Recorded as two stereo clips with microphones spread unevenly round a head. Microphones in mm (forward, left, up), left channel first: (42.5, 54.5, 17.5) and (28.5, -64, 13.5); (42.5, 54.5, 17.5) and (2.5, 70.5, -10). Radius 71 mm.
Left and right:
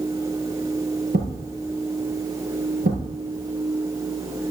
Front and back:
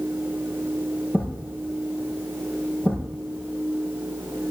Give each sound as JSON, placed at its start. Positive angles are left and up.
{"t": 1.1, "sound": "a thud", "azimuth_deg": -95, "distance_m": 5.5}